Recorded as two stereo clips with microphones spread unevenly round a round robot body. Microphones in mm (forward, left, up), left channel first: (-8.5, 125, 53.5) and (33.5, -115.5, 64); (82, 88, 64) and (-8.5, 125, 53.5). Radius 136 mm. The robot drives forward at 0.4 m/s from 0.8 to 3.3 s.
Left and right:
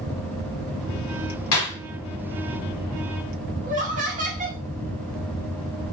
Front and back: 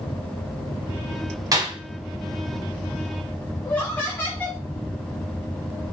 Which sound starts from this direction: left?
A clap, at 1.5 s.